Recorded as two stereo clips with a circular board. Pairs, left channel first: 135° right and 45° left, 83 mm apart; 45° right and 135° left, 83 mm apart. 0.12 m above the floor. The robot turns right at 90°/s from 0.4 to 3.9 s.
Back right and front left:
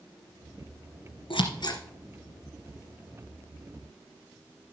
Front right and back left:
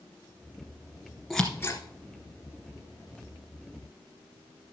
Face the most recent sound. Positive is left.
turn(degrees=100)